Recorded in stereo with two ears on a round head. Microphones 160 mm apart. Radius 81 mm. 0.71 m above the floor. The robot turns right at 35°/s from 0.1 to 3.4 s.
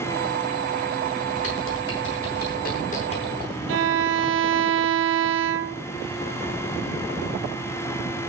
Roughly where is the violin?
Right.